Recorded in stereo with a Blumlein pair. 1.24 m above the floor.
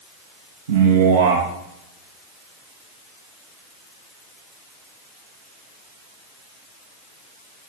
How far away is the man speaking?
About 1.1 m.